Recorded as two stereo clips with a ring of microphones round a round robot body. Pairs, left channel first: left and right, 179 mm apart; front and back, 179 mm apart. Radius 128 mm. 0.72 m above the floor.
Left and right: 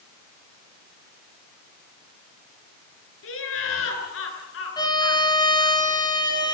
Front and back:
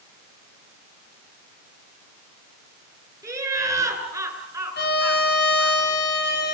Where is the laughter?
110° left, 9 m.